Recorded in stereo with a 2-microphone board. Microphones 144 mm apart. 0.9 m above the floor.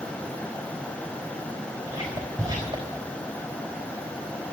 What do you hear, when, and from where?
1.9 s whispering: 35° right (ahead or behind), 3.5 m